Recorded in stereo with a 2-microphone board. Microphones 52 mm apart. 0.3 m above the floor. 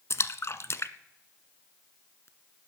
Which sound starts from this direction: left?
A splash, at 0.1 s.